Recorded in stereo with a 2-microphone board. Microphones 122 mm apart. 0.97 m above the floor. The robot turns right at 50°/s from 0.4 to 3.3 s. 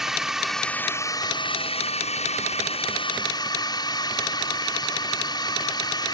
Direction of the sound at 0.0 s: 5° right.